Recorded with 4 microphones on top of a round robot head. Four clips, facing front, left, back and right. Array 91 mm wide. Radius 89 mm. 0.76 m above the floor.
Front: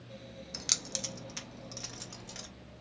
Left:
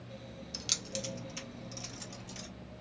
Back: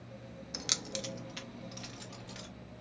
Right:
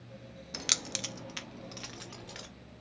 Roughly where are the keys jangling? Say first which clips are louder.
Right 3 dB, back 4 dB; right.